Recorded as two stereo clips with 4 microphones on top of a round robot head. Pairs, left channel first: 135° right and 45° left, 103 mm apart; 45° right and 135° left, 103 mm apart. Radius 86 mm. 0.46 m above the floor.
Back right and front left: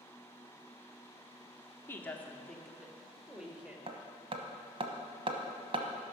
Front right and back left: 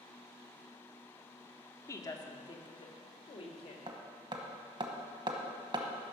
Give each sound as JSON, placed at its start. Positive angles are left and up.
{"t": 1.9, "sound": "a woman speaking", "azimuth_deg": -80, "distance_m": 1.1}
{"t": 3.9, "sound": "hammering", "azimuth_deg": 85, "distance_m": 0.9}